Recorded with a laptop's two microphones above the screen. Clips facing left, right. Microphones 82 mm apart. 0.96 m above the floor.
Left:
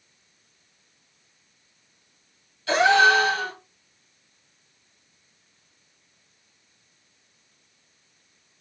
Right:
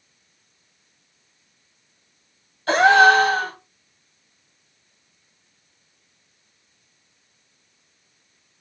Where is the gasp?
45° right (ahead or behind), 1.0 m.